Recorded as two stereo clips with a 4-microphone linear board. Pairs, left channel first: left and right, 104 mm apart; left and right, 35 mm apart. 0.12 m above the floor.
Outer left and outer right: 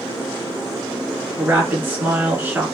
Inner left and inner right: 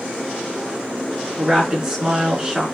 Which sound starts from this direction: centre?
A woman speaking, at 1.4 s.